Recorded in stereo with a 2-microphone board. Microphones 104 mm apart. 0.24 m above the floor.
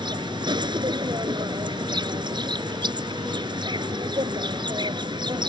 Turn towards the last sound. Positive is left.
turn(degrees=-50)  # may be behind; listen again after turning